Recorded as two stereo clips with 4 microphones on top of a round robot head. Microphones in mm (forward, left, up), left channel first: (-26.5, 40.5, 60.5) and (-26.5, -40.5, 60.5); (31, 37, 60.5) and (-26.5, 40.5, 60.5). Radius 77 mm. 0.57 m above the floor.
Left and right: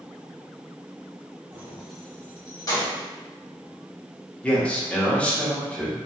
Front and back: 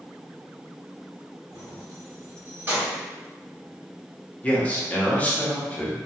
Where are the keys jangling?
150° right, 1.2 m; by 3.0 s 115° left, 1.6 m.